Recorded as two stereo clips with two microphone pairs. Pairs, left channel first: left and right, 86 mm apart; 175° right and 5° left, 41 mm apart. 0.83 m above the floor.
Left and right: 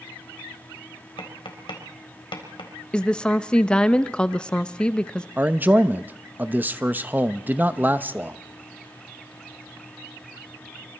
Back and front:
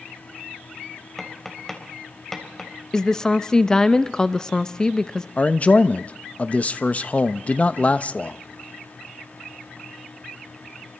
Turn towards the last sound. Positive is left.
turn(degrees=-145)